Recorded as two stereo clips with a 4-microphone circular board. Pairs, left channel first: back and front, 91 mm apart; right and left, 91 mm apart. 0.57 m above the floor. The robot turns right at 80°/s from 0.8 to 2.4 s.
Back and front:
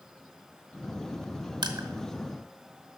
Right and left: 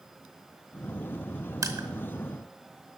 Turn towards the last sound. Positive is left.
turn(degrees=100)